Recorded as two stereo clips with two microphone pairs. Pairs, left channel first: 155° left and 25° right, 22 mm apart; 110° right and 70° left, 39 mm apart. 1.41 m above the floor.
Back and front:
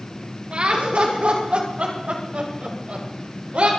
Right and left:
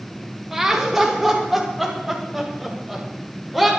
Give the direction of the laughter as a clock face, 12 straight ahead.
12 o'clock.